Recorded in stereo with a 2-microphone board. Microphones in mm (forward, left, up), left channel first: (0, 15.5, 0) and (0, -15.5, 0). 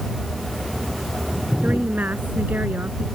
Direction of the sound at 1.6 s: 65° right (ahead or behind).